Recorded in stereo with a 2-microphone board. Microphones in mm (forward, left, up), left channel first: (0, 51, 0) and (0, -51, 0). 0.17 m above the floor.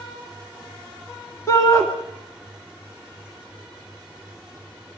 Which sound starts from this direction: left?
A shout, at 1.5 s.